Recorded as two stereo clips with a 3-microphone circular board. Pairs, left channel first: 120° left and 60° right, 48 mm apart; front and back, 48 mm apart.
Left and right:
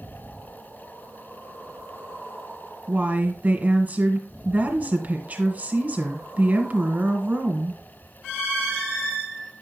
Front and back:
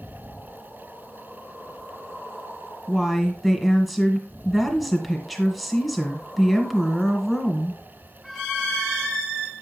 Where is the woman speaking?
90° right, 1.9 m.